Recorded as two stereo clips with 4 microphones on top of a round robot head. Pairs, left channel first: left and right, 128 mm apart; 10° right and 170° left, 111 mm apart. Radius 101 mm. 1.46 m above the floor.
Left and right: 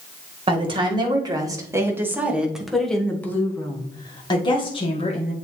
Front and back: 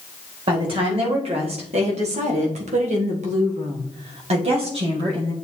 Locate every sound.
0.5 s a woman speaking: 140° right, 2 m; by 5.3 s 130° left, 2 m